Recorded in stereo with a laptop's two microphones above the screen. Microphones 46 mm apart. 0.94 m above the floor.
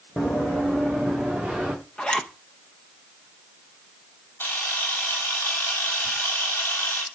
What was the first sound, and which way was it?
Running footsteps, 30° left (ahead or behind).